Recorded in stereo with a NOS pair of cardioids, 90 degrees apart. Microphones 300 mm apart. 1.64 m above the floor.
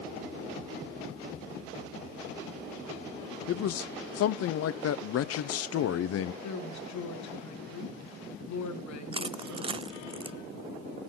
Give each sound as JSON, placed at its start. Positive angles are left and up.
{"t": 3.5, "sound": "a man speaking", "azimuth_deg": 55, "distance_m": 0.7}
{"t": 6.4, "sound": "a woman speaking", "azimuth_deg": 65, "distance_m": 4.0}
{"t": 9.1, "sound": "crushing", "azimuth_deg": -20, "distance_m": 0.6}